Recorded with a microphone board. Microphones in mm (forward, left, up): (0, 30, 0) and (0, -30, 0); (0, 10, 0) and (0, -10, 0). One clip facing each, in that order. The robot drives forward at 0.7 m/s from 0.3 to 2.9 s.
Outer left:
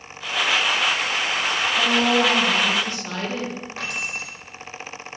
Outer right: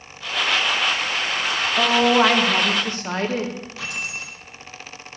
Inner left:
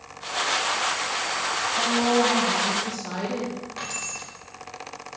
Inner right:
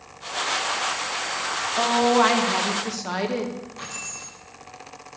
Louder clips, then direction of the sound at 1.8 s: Outer right 4 dB, inner right 4 dB; 70° right (ahead or behind).